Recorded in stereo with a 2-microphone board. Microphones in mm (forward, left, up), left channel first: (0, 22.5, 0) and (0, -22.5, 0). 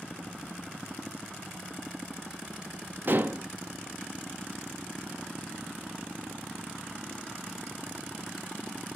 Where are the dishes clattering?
50° right (ahead or behind), 0.5 m.